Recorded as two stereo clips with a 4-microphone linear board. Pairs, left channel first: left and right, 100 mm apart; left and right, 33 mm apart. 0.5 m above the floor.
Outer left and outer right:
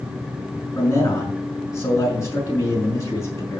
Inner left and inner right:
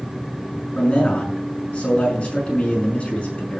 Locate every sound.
0.8 s a man speaking: 30° left (ahead or behind), 5.5 m